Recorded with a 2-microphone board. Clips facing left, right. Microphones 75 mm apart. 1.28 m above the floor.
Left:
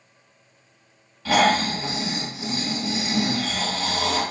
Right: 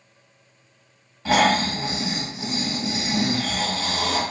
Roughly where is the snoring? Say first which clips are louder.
Even; right.